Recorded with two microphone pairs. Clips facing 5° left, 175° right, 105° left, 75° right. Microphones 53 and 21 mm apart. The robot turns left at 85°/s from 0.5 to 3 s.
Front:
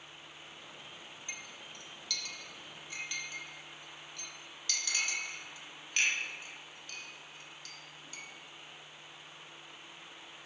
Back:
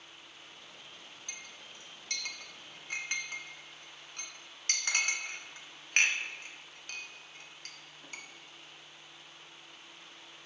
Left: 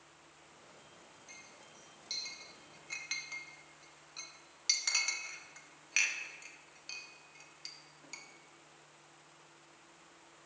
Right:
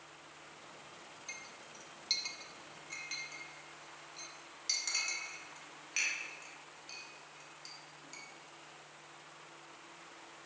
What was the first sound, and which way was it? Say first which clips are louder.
A clink: front 2 dB, right 6 dB; 55° right.